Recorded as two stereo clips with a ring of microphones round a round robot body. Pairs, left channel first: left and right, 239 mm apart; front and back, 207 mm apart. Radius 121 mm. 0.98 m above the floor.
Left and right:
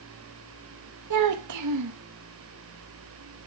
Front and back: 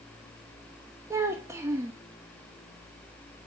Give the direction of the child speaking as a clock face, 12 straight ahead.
3 o'clock.